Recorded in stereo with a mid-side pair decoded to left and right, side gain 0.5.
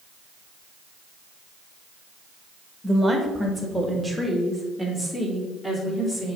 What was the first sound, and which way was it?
A woman speaking, 5° right.